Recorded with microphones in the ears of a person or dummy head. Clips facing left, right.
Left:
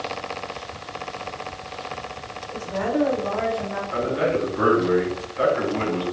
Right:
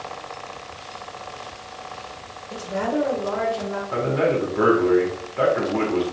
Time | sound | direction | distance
2.5 | a woman speaking | 70° right (ahead or behind) | 1.3 m
3.9 | a man speaking | 60° right (ahead or behind) | 1.6 m